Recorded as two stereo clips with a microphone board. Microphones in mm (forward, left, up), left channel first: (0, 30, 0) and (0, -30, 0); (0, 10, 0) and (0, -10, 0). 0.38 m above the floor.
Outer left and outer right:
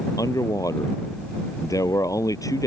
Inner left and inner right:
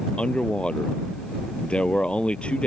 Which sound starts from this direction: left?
A man speaking, at 0.2 s.